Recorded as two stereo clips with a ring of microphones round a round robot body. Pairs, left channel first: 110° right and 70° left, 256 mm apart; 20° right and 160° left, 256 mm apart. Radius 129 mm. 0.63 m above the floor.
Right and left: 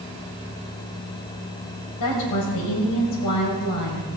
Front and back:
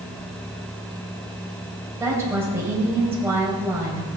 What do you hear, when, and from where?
2.0 s a woman speaking: 120° right, 3.5 m